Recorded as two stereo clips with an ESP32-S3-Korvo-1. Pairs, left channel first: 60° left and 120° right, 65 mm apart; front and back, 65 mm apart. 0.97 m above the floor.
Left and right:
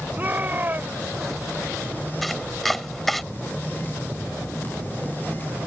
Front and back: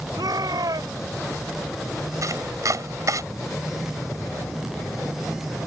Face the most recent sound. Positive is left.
turn(degrees=150)